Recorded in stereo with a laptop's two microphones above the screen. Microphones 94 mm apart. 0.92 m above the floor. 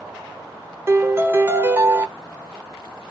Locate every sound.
0.9 s a piano: 25° right (ahead or behind), 0.8 m